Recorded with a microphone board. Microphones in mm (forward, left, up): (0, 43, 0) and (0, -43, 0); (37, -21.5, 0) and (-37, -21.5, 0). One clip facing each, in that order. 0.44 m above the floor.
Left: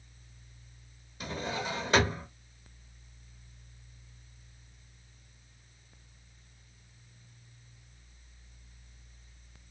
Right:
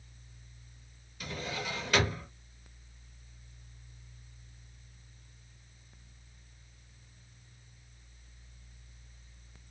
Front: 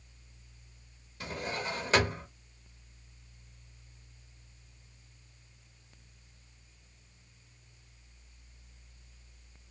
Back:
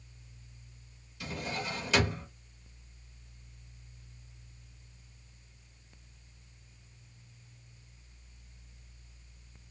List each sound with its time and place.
1.2 s a drawer: 35° left, 0.8 m